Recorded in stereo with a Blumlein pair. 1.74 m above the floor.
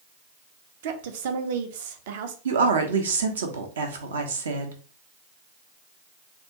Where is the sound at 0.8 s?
55° right, 0.7 m.